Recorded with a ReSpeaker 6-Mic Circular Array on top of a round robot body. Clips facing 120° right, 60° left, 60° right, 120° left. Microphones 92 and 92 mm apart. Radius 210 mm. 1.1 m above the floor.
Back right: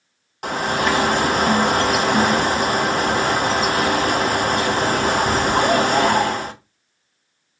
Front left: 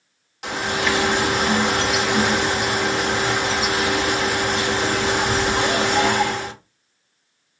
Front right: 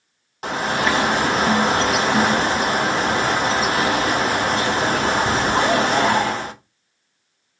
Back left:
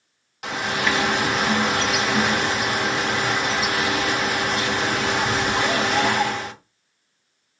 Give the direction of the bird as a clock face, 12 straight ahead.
3 o'clock.